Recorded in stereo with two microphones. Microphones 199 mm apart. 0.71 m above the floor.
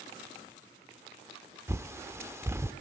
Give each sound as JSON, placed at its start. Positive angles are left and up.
{"t": 1.7, "sound": "a bird", "side_deg": -10, "distance_m": 0.6}